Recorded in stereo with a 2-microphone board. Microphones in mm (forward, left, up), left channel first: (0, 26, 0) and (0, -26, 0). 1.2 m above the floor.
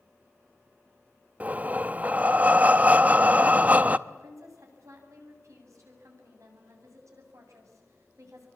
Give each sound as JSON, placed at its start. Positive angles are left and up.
{"t": 1.4, "sound": "breathing", "side_deg": -30, "distance_m": 0.6}
{"t": 4.1, "sound": "a woman speaking", "side_deg": -75, "distance_m": 8.0}